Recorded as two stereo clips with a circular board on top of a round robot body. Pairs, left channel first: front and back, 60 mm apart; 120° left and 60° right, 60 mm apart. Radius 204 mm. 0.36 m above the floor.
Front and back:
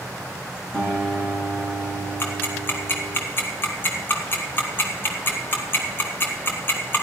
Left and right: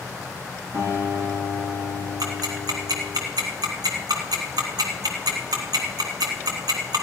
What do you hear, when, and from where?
0.7 s a guitar: 90° right, 6.5 m
2.2 s ticking: 55° right, 1.2 m